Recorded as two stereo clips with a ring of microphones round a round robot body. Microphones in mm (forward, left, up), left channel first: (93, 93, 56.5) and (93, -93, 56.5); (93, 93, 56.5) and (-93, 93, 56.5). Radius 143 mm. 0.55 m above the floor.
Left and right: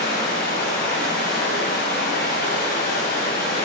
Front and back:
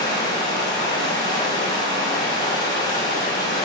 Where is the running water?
65° left, 3 m.